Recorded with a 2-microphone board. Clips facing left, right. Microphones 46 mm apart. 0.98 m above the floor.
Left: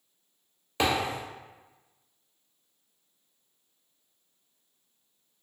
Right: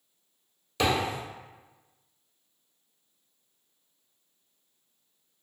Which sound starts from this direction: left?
A thud, at 0.8 s.